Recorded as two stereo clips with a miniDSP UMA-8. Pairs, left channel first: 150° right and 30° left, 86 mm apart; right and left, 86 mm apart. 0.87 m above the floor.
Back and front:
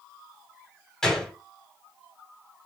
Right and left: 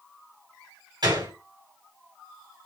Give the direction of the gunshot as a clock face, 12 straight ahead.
8 o'clock.